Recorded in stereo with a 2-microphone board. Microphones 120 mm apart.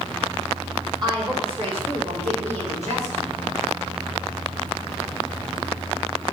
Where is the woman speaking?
40° right (ahead or behind), 2.5 m; by 3.4 s 75° right (ahead or behind), 4 m.